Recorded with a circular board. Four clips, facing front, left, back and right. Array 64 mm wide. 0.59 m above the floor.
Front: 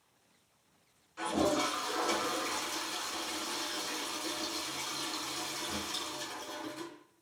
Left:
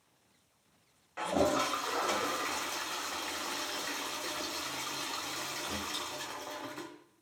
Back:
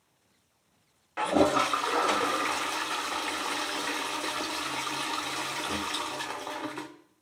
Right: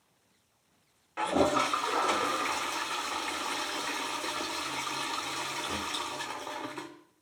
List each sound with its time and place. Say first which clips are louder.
1.2 s a toilet flushing: right 3 dB, back 7 dB; 165° right, 0.7 m